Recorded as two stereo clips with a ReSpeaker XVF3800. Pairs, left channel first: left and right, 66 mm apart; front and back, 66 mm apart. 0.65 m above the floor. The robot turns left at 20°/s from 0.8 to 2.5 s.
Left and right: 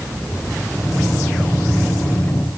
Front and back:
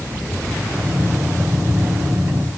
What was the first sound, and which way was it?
Only background noise.